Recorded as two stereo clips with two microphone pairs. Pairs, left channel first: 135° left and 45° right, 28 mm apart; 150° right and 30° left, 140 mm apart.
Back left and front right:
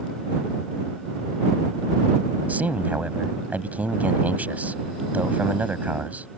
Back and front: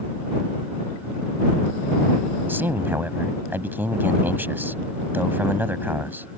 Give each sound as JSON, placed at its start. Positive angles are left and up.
{"t": 2.5, "sound": "a man speaking", "azimuth_deg": -45}